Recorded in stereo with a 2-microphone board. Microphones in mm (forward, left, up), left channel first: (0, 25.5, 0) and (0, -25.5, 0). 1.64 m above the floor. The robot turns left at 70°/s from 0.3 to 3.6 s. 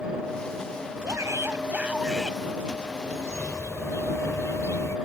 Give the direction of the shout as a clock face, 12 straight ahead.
3 o'clock.